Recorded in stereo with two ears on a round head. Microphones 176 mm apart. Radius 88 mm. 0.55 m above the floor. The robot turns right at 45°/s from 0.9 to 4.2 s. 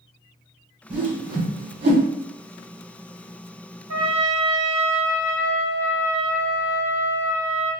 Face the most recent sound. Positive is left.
turn(degrees=-75)  # may be behind; listen again after turning